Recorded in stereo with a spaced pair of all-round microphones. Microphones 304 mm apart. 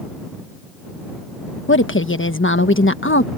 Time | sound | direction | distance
1.7 | a woman speaking | 40° left (ahead or behind) | ?